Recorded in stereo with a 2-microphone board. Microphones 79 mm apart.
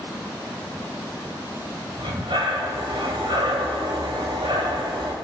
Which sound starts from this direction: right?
Breathing, at 2.0 s.